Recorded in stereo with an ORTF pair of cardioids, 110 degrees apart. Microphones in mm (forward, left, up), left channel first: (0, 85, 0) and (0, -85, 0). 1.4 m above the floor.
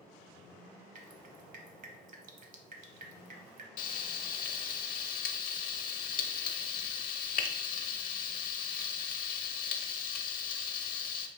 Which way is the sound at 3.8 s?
55° left.